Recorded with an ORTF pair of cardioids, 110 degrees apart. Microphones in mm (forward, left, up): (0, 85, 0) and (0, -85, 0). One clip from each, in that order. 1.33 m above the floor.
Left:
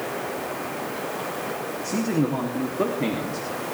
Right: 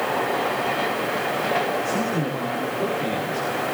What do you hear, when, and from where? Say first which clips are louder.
1.8 s a man speaking: right 1 dB; 50° left, 3.5 m